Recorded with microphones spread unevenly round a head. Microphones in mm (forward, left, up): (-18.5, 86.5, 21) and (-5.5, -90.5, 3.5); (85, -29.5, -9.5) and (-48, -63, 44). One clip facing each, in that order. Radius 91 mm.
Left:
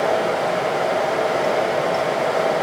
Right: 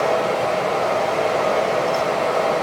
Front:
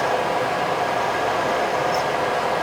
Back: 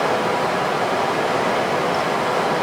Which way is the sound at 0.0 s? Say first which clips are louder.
Even, back 2 dB; straight behind.